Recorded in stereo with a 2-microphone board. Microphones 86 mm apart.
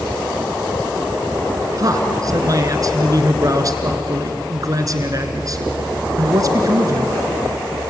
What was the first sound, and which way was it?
A man speaking, 45° right (ahead or behind).